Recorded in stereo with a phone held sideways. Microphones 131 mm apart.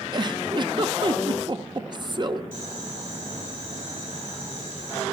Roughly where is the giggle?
Right.